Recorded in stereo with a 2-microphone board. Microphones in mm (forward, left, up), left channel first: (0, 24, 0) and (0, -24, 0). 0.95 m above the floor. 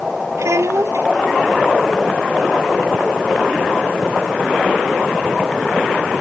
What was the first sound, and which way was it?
A child speaking, 80° right.